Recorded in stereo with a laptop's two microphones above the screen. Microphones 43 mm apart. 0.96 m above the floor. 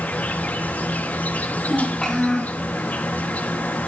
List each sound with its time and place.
0.0 s an insect: 40° left (ahead or behind), 2.5 m
1.6 s a child speaking: 10° left (ahead or behind), 6.5 m